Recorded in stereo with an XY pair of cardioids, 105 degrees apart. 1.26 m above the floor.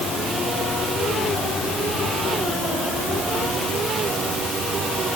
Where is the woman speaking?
I don't hear a woman speaking.